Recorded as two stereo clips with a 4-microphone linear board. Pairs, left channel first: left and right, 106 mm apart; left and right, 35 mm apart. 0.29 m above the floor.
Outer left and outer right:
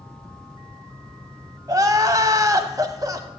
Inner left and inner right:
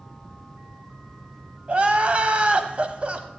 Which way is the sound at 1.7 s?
35° right (ahead or behind).